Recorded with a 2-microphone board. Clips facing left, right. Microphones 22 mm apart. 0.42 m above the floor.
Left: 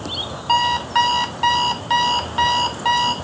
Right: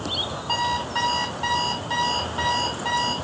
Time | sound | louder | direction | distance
0.5 | an alarm clock | left 8 dB | 40° left (ahead or behind) | 0.6 m